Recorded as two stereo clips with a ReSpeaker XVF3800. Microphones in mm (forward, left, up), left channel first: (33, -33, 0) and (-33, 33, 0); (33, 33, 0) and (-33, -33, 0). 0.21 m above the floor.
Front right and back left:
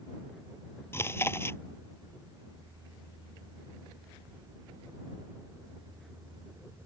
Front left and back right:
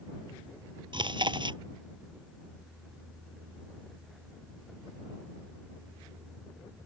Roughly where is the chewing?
Right.